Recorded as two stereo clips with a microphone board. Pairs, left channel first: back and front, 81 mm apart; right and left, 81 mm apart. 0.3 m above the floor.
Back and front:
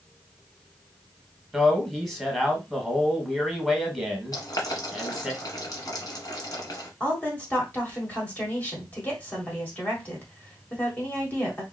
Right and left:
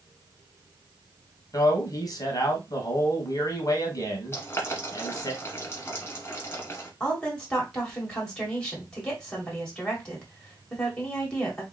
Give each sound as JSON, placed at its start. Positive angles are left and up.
{"t": 1.5, "sound": "a man speaking", "azimuth_deg": -95, "distance_m": 1.4}
{"t": 4.3, "sound": "boiling", "azimuth_deg": -150, "distance_m": 1.2}
{"t": 7.0, "sound": "a woman speaking", "azimuth_deg": -155, "distance_m": 1.4}